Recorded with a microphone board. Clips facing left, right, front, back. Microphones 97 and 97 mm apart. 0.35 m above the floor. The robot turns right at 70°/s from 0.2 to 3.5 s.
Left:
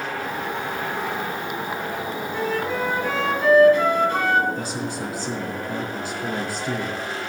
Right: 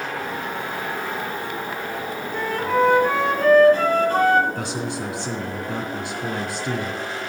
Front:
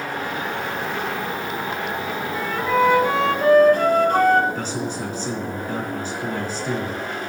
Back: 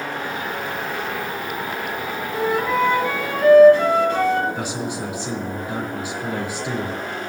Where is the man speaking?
100° right, 3.5 m.